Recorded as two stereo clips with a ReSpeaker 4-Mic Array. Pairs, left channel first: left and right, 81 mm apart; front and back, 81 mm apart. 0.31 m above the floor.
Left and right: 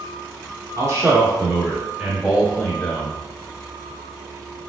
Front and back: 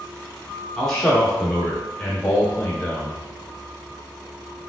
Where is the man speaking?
85° right, 1.4 m; by 3.2 s 65° left, 1.2 m.